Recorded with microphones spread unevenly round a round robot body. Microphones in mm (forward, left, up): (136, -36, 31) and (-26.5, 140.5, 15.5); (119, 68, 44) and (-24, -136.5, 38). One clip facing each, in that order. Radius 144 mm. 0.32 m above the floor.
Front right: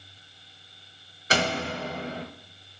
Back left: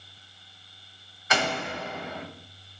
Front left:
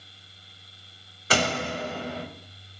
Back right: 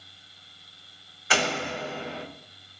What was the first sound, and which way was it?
A door slam, 10° left.